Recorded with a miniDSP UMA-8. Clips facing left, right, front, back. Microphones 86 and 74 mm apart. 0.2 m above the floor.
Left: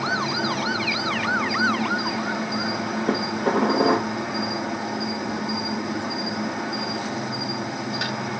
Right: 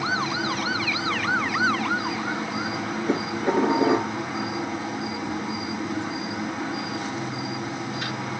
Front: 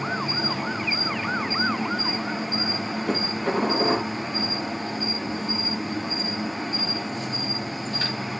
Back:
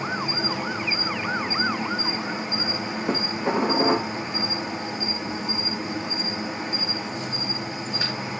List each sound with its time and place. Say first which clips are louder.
0.0 s an insect: left 1 dB, even; 100° left, 5.5 m
3.1 s dishes clattering: left 1 dB, back 1 dB; 105° left, 5 m